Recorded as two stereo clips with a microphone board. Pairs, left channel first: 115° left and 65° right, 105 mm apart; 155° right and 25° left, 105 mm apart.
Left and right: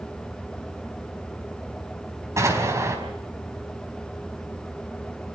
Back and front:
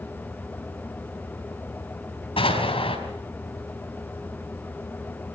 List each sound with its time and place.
2.4 s an explosion: 130° right, 4.5 m